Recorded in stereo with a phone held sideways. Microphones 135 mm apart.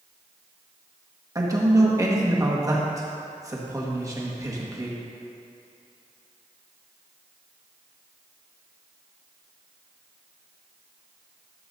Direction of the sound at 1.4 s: 25° right (ahead or behind).